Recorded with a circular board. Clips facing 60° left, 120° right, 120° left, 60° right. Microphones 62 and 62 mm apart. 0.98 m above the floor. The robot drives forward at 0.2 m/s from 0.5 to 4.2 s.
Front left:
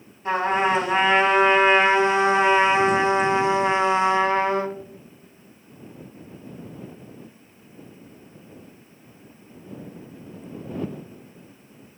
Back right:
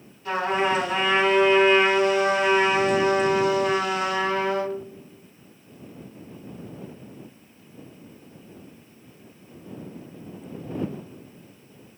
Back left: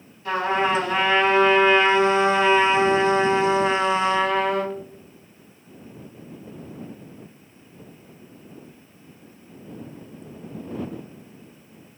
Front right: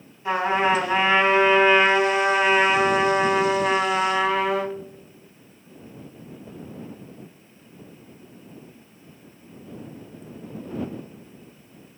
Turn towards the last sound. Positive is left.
turn(degrees=25)